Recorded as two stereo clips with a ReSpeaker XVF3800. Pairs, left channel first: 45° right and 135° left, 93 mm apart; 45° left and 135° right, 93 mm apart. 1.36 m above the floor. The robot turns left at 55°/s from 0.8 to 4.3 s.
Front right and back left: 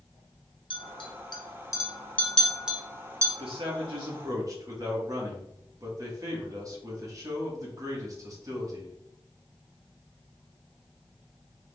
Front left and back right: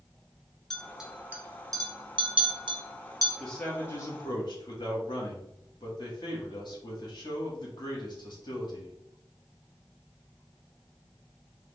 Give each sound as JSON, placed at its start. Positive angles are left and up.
{"t": 0.7, "sound": "a clink", "azimuth_deg": -40, "distance_m": 0.7}
{"t": 3.4, "sound": "a man speaking", "azimuth_deg": 135, "distance_m": 1.3}